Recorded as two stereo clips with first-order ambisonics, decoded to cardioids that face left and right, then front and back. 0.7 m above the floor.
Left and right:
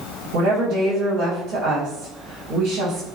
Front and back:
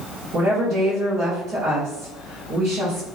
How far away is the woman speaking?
About 1.5 m.